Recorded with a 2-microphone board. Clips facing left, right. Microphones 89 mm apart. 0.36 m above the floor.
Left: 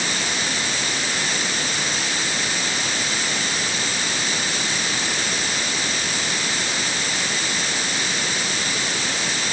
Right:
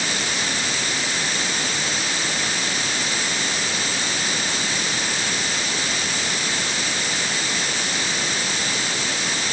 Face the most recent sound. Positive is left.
No sound to turn to.